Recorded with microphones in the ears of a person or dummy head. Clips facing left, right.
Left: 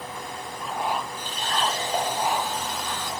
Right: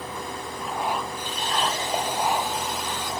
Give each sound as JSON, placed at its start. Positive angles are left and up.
{"t": 1.2, "sound": "a running tap", "side_deg": -5, "distance_m": 1.7}